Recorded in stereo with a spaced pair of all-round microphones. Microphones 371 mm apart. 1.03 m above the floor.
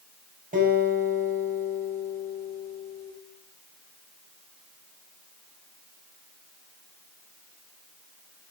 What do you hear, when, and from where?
0.5 s a guitar: 25° right (ahead or behind), 5 m